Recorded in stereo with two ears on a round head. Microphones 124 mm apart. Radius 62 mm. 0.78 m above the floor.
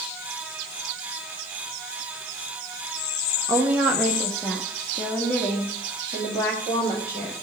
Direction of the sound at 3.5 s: 20° right (ahead or behind).